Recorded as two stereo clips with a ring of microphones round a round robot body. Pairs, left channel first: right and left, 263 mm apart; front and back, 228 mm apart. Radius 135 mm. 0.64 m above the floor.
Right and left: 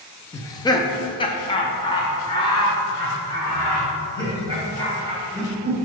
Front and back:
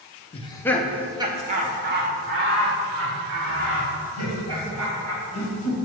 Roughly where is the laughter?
Ahead right.